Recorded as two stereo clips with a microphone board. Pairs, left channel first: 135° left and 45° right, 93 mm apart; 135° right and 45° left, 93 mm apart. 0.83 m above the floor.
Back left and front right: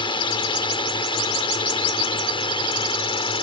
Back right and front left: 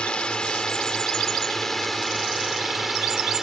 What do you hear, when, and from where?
0.0 s a drone: 145° left; by 3.4 s 130° left